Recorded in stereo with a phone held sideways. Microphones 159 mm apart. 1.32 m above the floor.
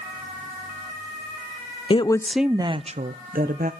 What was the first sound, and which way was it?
A woman speaking, 35° left (ahead or behind).